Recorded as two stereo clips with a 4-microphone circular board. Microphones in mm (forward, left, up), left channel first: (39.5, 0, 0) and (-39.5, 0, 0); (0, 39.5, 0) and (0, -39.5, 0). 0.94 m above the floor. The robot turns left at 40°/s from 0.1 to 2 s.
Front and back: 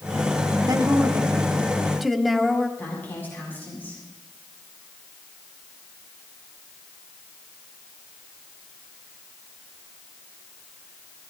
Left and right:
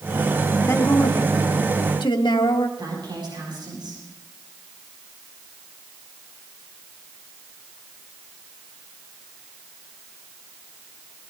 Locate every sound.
0.6 s a woman speaking: 145° left, 1.6 m; by 2.7 s 90° left, 1.6 m
2.8 s a woman speaking: 65° right, 7 m